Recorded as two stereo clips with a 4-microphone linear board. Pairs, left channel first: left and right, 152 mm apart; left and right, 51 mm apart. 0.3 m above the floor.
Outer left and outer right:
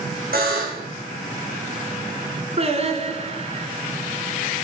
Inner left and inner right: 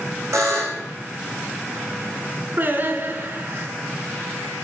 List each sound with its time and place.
0.3 s a buzzer: 80° right, 5.5 m
2.6 s singing: 45° right (ahead or behind), 1.8 m